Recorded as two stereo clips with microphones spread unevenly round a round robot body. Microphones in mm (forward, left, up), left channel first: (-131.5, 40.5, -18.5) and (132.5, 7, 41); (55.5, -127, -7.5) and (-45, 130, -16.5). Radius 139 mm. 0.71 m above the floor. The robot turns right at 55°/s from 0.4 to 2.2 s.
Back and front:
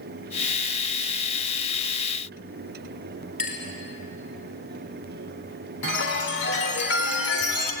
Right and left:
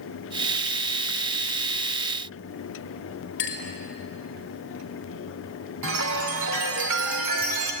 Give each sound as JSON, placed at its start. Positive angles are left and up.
{"t": 3.4, "sound": "a clink", "azimuth_deg": -120, "distance_m": 5.5}
{"t": 5.8, "sound": "a chime", "azimuth_deg": 135, "distance_m": 3.0}